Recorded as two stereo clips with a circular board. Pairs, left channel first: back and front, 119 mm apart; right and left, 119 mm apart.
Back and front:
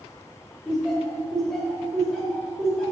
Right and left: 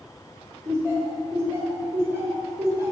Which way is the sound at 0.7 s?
100° left.